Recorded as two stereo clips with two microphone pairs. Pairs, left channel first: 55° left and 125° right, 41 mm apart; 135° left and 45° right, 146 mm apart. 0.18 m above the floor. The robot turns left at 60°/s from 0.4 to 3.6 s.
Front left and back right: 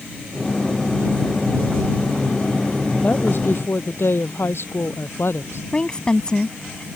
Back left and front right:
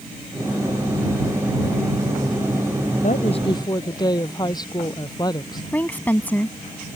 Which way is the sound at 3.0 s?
105° left.